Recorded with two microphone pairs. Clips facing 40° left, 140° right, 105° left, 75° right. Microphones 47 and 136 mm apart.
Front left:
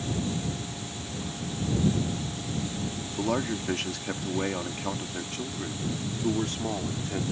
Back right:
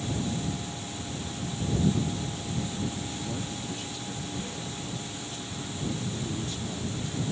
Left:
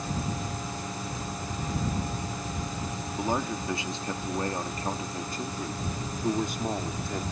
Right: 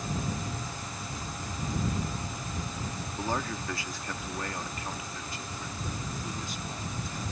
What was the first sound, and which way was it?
A man speaking, 30° left.